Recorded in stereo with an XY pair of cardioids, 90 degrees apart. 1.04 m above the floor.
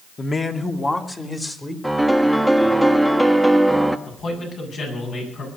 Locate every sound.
0.2 s a man speaking: 40° left, 1.8 m; by 1.7 s 20° left, 2.5 m
1.8 s a piano: straight ahead, 1.3 m
4.1 s a man speaking: 65° left, 8 m